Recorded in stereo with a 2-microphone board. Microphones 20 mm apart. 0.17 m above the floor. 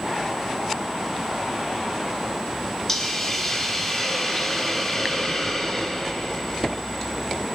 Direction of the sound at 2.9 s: 15° left (ahead or behind).